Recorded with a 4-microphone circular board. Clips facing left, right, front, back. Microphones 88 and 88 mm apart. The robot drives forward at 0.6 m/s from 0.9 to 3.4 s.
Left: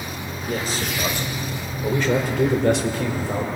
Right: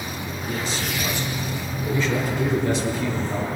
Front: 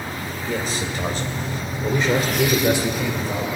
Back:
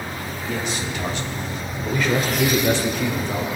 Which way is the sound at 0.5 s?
50° left.